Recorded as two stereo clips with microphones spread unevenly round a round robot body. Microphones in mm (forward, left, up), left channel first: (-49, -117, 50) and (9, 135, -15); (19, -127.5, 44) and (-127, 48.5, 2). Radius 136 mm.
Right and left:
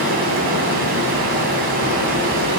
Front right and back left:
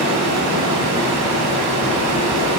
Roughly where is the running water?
Behind left.